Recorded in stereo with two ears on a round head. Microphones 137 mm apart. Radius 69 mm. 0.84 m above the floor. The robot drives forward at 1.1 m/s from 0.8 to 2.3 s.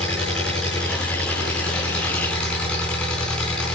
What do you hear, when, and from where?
0.0 s an engine running: 5° left (ahead or behind), 6.5 m